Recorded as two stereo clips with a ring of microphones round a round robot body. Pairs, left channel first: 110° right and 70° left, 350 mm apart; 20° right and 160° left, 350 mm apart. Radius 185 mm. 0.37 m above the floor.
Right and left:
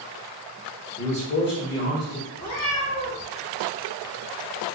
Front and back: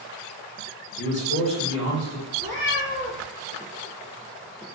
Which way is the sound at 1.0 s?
55° right.